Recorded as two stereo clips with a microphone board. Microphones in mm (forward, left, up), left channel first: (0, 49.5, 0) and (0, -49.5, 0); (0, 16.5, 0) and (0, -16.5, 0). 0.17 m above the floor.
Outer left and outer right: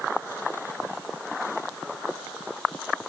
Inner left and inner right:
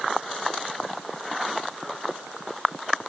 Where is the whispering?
No whispering in this recording.